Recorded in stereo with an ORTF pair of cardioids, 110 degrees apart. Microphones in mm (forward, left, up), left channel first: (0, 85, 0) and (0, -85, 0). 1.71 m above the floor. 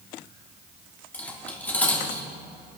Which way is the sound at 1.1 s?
10° left.